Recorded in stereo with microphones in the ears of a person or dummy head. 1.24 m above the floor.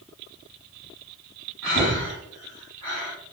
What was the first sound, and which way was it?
Breathing, 10° left (ahead or behind).